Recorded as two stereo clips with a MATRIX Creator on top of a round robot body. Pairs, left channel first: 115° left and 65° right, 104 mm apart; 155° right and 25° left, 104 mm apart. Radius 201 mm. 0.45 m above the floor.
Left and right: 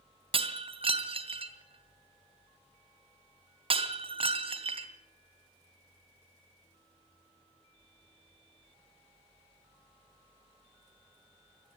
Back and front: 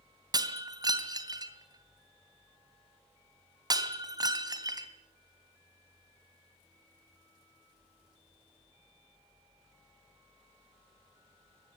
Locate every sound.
0.3 s breaking glass: 30° right, 2.5 m